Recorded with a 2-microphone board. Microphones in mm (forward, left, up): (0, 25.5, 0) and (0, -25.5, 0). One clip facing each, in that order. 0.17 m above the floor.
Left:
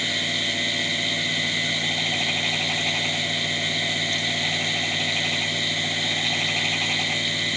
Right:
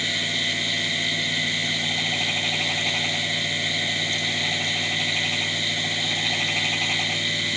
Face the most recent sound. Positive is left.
No sound to turn to.